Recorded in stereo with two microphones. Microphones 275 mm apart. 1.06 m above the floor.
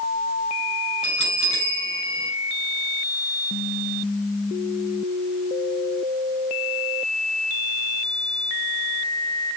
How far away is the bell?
About 6 m.